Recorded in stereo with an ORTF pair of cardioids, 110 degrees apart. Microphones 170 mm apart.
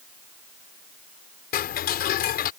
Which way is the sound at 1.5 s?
65° left.